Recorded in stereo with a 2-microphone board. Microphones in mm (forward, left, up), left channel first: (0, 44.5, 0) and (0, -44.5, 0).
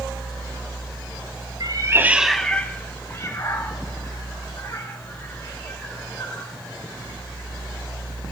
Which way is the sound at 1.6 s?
55° right (ahead or behind).